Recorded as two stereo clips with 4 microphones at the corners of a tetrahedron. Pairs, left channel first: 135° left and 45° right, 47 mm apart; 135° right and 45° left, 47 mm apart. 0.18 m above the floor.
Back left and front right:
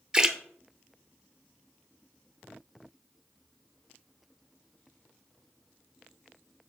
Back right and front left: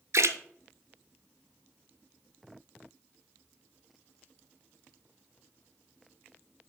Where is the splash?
30° left, 0.6 m.